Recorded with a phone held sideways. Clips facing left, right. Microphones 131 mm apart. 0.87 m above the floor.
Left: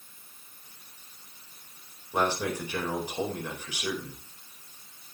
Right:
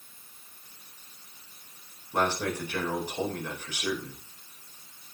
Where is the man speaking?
10° left (ahead or behind), 4 m.